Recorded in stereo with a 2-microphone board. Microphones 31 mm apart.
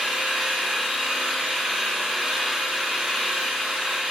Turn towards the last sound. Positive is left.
turn(degrees=-5)  # may be behind; listen again after turning